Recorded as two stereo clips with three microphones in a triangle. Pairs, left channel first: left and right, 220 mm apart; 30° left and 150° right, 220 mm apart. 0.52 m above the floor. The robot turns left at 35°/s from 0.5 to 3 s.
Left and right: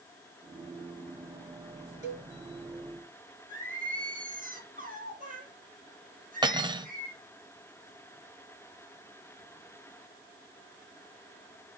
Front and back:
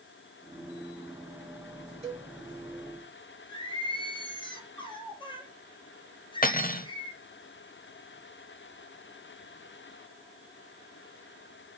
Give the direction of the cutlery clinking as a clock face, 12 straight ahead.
1 o'clock.